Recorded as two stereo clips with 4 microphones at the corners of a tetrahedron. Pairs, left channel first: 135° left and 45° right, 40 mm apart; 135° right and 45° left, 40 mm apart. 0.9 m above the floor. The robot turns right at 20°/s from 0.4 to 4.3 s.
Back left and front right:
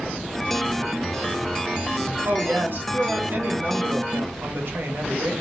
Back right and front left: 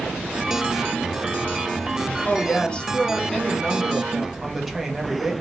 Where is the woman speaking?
80° right, 0.9 m; by 5.3 s 40° right, 0.9 m.